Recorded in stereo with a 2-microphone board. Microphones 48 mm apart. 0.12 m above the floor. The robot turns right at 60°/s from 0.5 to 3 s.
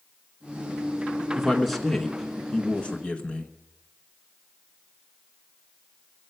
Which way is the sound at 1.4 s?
5° right (ahead or behind).